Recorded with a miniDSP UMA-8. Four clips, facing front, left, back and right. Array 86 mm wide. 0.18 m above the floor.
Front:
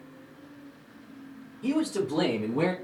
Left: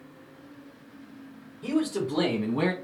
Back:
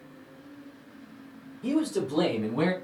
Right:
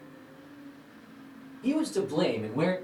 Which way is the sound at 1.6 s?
65° left.